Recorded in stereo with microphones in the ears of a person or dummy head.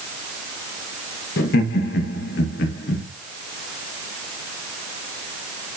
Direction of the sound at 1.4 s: 65° left (ahead or behind).